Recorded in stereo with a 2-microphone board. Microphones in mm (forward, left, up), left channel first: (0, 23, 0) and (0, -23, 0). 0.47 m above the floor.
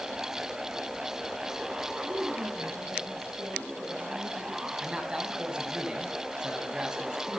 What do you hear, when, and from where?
2.0 s a woman speaking: 80° right, 9 m; by 4.7 s 75° right (ahead or behind), 11 m
4.8 s a man speaking: 20° right (ahead or behind), 4.5 m